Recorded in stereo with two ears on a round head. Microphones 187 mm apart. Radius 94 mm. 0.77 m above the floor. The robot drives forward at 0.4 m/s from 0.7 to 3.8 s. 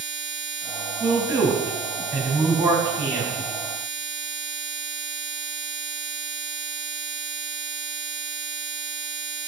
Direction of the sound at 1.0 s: 20° right (ahead or behind).